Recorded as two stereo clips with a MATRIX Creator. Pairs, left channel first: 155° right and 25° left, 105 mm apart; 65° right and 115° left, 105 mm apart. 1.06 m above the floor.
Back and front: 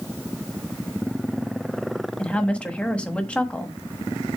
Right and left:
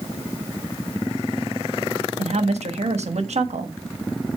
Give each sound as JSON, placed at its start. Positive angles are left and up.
{"t": 2.2, "sound": "a woman speaking", "azimuth_deg": 125, "distance_m": 1.3}